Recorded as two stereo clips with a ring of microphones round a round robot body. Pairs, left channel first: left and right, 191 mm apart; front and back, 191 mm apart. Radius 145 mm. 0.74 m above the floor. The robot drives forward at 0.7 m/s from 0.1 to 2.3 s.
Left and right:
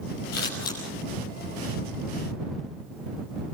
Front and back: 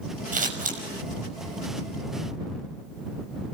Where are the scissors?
135° left, 5.5 m; by 0.8 s 140° left, 6 m.